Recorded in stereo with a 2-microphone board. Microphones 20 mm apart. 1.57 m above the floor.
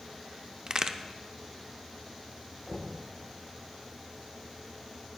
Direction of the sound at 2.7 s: 65° left (ahead or behind).